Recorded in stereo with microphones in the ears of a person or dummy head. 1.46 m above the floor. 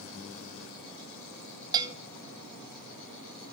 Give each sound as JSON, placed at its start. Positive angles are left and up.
{"t": 1.7, "sound": "a bell", "side_deg": -25, "distance_m": 0.7}